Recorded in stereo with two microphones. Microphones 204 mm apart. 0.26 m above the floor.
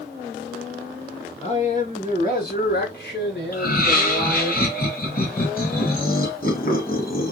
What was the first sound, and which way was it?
A man speaking, 25° left (ahead or behind).